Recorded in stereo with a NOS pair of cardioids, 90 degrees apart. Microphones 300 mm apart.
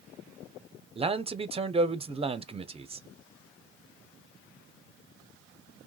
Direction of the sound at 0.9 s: 20° right.